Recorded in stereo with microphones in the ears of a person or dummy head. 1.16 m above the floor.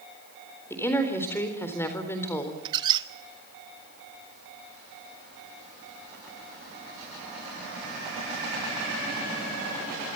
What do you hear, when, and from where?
0.7 s a woman speaking: 10° left (ahead or behind), 4 m
2.6 s a squeak: 20° right (ahead or behind), 1.1 m